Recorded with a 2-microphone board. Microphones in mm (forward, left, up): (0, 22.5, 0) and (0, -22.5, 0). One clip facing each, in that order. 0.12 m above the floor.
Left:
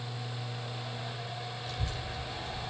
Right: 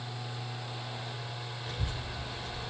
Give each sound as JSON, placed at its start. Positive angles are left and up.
{"t": 1.7, "sound": "a child speaking", "side_deg": -25, "distance_m": 1.1}